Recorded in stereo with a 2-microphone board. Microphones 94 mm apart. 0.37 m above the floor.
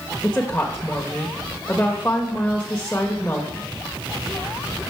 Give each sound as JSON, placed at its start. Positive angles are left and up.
{"t": 0.2, "sound": "a woman speaking", "side_deg": 20, "distance_m": 1.0}